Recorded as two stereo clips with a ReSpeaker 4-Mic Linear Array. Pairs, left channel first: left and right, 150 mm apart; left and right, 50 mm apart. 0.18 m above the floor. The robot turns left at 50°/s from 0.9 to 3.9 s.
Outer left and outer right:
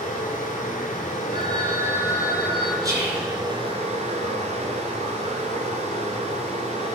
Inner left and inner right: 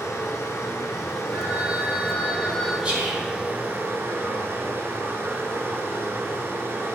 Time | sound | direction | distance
0.0 | running water | 90° left | 1.1 m
1.3 | a phone ringing | 140° right | 1.6 m
2.8 | whispering | 25° right (ahead or behind) | 1.4 m